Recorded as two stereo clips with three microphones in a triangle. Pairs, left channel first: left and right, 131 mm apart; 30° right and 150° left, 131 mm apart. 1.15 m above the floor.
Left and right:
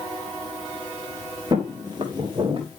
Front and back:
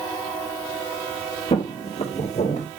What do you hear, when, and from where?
1.5 s footsteps: 45° right, 1.7 m